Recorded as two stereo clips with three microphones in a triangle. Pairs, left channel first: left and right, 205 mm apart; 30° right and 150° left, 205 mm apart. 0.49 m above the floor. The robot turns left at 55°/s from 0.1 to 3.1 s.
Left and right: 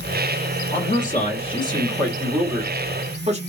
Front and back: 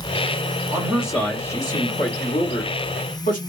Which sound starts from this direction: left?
A man speaking, at 0.7 s.